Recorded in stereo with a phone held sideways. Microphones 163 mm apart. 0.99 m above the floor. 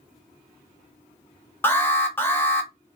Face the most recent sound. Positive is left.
turn(degrees=15)  # may be behind; listen again after turning